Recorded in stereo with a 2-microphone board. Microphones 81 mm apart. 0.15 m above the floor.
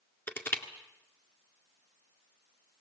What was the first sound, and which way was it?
Crushing, 25° left (ahead or behind).